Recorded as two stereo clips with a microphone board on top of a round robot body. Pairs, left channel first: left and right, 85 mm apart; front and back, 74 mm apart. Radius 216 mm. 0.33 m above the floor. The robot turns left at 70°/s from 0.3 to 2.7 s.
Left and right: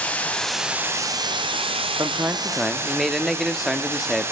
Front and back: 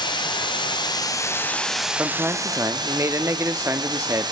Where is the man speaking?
130° right, 0.9 m; by 4.3 s 175° right, 0.9 m.